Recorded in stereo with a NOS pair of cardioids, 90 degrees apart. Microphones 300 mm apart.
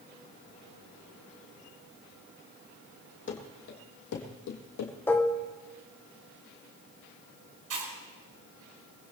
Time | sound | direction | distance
3.3 | running footsteps | 45° left | 3.5 m
5.1 | dishes clattering | 5° left | 1.7 m
7.7 | chewing | 55° right | 5 m